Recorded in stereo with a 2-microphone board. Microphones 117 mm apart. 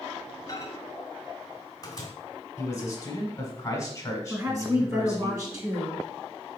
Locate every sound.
0.5 s a microwave: 30° left (ahead or behind), 1.2 m
2.6 s a man speaking: 25° left (ahead or behind), 1.3 m
4.3 s a woman speaking: 30° right (ahead or behind), 1.7 m